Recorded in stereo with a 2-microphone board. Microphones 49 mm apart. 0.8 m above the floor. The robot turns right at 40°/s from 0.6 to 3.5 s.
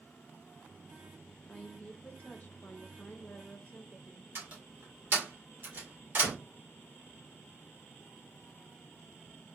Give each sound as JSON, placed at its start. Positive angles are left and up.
{"t": 1.5, "sound": "a woman speaking", "azimuth_deg": 30, "distance_m": 0.6}
{"t": 4.3, "sound": "a door slam", "side_deg": -45, "distance_m": 1.6}